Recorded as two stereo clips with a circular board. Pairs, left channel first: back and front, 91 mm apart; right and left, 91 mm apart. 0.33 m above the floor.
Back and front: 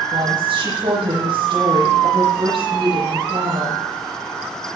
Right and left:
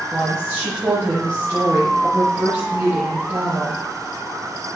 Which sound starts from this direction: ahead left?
A woman speaking, at 0.1 s.